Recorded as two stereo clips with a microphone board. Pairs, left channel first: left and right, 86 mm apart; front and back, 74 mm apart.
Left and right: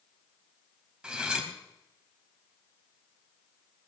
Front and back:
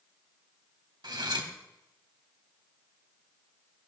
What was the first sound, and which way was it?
Cutlery clinking, 170° right.